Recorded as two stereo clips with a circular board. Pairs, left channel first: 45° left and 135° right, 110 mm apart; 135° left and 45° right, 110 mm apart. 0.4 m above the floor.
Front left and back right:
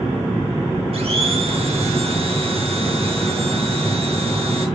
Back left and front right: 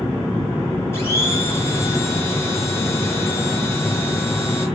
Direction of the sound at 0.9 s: 155° right.